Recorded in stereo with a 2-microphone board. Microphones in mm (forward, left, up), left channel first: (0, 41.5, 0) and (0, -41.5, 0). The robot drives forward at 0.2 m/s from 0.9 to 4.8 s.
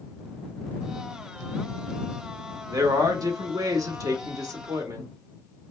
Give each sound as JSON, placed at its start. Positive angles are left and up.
{"t": 2.7, "sound": "a man speaking", "side_deg": -45, "distance_m": 1.1}